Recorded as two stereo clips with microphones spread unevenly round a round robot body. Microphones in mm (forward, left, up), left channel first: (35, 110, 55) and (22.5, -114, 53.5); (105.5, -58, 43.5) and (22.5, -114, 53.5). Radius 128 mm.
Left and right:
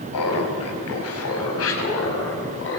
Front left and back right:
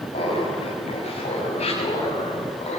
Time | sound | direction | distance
0.1 | laughter | 80° left | 5.5 m